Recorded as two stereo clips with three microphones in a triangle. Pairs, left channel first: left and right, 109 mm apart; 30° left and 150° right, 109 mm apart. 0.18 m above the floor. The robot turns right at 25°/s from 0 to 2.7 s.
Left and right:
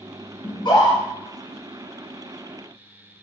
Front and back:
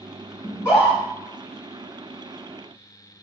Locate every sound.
0.4 s a scream: 80° left, 1.6 m; by 1.0 s 90° left, 1.6 m